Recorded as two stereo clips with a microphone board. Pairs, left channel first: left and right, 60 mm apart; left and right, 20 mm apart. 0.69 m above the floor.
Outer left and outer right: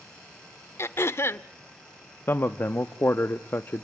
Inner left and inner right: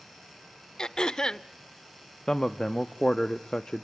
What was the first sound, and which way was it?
Throat clearing, 45° left (ahead or behind).